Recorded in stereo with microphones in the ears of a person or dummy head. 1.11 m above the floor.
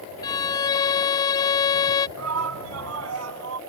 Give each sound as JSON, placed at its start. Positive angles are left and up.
{"t": 0.2, "sound": "a violin", "side_deg": 20}
{"t": 2.2, "sound": "a shout", "side_deg": -85}